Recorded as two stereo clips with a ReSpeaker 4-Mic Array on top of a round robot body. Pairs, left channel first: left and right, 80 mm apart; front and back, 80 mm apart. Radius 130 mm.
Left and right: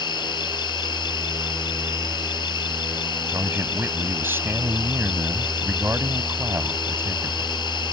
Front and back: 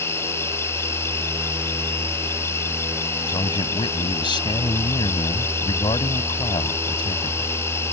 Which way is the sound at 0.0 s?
60° left.